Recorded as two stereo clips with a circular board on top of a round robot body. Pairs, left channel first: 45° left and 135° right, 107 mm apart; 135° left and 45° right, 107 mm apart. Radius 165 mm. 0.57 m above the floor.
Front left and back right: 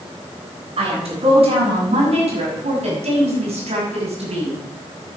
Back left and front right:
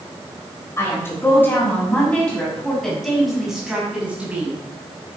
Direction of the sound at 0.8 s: 160° right.